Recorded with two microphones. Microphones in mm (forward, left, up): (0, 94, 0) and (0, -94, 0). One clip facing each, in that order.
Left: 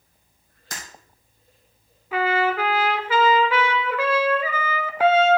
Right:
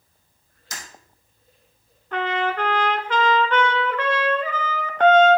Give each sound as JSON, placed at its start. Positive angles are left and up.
{"t": 0.7, "sound": "breaking glass", "side_deg": 55, "distance_m": 3.0}
{"t": 2.1, "sound": "a trumpet", "side_deg": 5, "distance_m": 0.7}